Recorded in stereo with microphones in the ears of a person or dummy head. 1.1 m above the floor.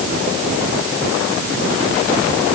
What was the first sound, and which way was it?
Only background noise.